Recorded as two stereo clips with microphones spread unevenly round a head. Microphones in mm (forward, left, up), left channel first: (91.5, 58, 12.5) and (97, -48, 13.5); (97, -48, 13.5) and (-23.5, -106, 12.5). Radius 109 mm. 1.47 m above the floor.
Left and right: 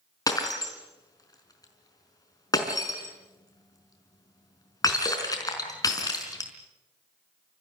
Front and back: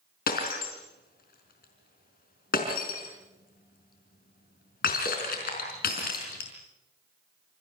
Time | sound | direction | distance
0.3 | breaking glass | 40° left | 5 m